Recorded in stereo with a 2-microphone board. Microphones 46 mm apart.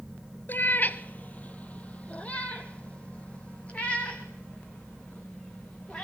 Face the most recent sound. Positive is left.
turn(degrees=25)  # may be behind; listen again after turning